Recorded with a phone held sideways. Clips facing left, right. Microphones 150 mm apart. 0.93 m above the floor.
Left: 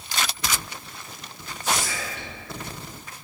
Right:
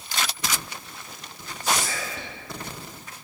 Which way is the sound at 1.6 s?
35° right (ahead or behind).